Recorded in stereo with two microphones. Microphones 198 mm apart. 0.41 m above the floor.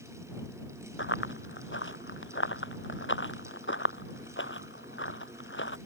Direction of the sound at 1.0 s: 85° left.